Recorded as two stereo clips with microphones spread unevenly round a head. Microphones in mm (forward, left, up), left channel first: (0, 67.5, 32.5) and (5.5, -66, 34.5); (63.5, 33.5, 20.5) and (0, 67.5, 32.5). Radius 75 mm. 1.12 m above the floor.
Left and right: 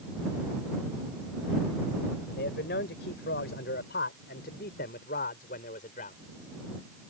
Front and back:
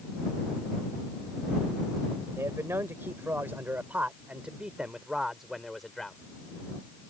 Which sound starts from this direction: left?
A man speaking, at 2.4 s.